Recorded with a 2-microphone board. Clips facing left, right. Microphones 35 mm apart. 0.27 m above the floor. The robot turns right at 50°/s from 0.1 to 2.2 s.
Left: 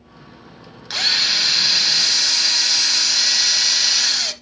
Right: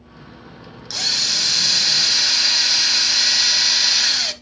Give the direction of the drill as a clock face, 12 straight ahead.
8 o'clock.